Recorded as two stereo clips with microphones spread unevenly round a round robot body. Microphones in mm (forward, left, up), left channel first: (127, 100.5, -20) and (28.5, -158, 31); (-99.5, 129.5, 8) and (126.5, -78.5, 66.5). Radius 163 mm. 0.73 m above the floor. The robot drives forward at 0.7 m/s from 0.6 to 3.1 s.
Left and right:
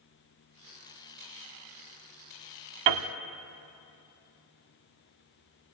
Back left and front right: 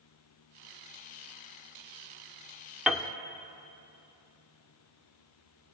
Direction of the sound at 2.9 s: 130° right.